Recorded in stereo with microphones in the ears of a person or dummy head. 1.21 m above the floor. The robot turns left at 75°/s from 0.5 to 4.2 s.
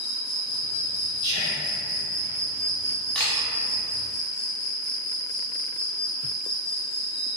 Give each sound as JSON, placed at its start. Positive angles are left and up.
{"t": 0.0, "sound": "an insect", "azimuth_deg": 130, "distance_m": 1.0}
{"t": 1.2, "sound": "whispering", "azimuth_deg": -160, "distance_m": 0.9}
{"t": 3.1, "sound": "a camera shutter", "side_deg": 5, "distance_m": 0.5}